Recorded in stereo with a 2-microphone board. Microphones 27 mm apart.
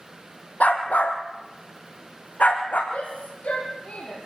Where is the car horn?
I don't hear a car horn.